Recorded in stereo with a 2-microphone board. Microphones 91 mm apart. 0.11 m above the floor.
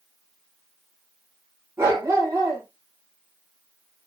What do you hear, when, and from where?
1.8 s a dog barking: 30° right (ahead or behind), 6.5 m